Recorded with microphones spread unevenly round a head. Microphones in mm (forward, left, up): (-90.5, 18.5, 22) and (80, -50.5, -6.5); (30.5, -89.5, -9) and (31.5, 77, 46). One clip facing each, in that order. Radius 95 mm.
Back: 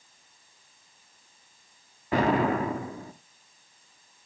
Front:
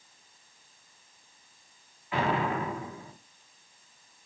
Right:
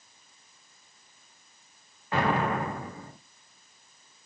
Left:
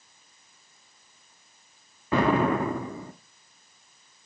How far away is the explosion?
About 1.6 m.